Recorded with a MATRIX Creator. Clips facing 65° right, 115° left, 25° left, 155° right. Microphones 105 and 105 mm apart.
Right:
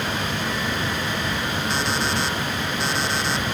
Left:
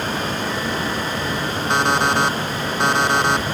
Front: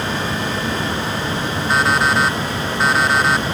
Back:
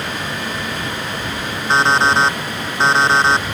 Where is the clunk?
I don't hear a clunk.